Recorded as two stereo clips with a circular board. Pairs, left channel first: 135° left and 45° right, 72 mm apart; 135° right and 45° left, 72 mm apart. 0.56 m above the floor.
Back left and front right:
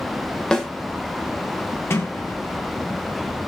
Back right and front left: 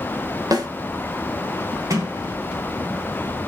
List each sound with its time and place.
0.5 s a snare drum: 55° left, 2.5 m
1.9 s a sliding door: 80° left, 3.5 m